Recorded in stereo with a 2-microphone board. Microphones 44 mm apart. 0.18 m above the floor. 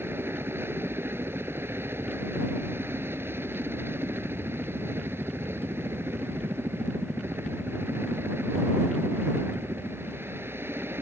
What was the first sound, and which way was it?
A helicopter, 65° right (ahead or behind).